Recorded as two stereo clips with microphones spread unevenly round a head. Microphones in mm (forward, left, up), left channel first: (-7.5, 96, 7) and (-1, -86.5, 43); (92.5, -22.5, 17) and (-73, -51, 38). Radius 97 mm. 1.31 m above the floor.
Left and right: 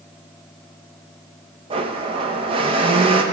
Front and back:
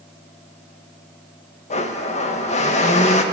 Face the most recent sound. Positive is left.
turn(degrees=-40)